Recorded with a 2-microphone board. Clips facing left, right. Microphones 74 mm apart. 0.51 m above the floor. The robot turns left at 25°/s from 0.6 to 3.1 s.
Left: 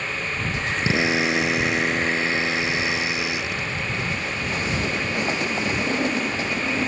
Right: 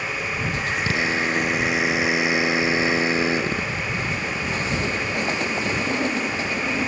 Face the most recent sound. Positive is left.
turn(degrees=-35)